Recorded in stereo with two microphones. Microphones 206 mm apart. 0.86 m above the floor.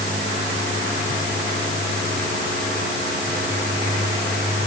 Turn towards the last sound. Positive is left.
No sound to turn to.